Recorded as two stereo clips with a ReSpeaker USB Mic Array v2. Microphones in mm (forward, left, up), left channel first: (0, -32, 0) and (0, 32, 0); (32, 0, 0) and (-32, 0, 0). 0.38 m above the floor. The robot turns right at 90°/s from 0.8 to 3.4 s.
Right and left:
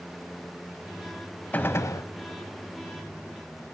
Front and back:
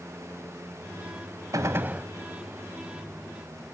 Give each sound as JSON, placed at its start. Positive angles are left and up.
{"t": 1.5, "sound": "a gunshot", "azimuth_deg": -155, "distance_m": 1.0}